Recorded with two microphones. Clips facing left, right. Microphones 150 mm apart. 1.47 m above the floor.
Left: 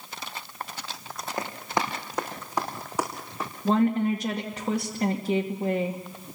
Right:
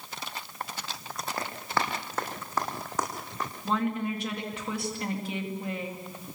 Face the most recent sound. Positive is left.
turn(degrees=40)  # may be behind; listen again after turning